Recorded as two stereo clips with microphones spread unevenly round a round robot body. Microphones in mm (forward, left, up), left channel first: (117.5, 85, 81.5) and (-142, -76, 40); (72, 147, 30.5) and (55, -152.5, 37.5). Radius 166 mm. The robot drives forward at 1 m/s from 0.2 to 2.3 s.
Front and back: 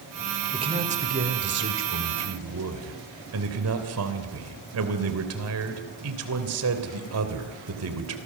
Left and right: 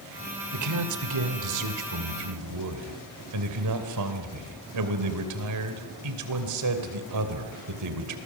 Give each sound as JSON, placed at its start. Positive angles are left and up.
{"t": 0.5, "sound": "a man speaking", "azimuth_deg": -80, "distance_m": 2.5}